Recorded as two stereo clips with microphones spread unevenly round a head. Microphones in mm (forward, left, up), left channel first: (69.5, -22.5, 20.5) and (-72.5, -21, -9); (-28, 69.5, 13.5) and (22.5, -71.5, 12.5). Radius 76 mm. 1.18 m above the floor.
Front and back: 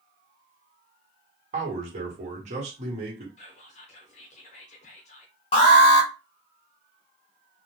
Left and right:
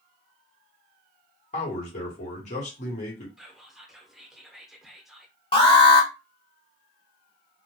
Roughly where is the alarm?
Ahead left.